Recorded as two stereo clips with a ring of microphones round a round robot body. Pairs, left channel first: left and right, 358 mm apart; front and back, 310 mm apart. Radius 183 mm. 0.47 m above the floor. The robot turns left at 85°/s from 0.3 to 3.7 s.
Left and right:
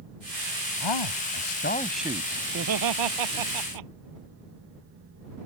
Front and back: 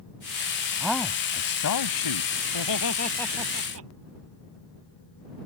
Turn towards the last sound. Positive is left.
turn(degrees=-125)